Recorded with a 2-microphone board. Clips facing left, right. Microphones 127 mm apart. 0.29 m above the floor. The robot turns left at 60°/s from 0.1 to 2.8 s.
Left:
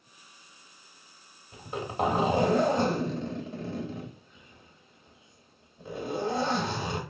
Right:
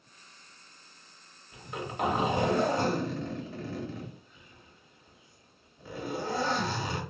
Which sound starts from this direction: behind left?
A zipper, at 1.5 s.